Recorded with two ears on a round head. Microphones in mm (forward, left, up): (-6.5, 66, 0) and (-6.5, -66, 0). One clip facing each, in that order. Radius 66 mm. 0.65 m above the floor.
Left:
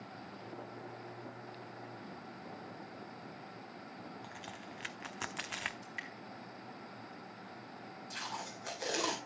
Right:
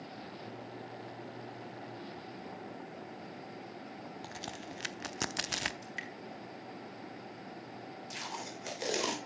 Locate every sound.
4.2 s a crack: 45° right (ahead or behind), 0.6 m
5.8 s dripping: 50° right (ahead or behind), 3.5 m
8.1 s tape being pulled: 20° right (ahead or behind), 3 m